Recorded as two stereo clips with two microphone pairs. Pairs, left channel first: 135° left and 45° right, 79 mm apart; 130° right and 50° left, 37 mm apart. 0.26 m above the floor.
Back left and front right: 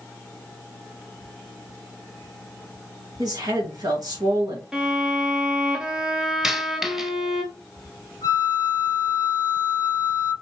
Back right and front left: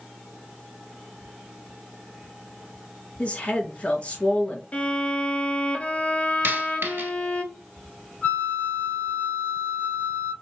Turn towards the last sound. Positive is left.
turn(degrees=-70)